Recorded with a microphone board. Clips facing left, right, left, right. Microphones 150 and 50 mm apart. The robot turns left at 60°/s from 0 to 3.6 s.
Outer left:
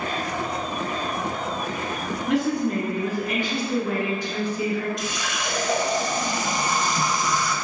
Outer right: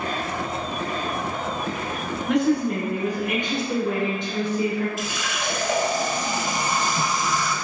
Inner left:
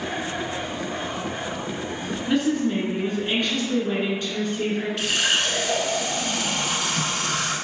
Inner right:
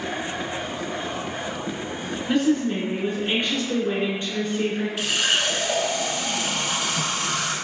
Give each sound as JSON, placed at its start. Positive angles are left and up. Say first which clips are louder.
{"t": 2.3, "sound": "a woman speaking", "louder": "outer right 2 dB, inner right 1 dB", "side_deg": 5, "distance_m": 1.2}
{"t": 5.0, "sound": "a running tap", "louder": "even, inner right 1 dB", "side_deg": -5, "distance_m": 0.7}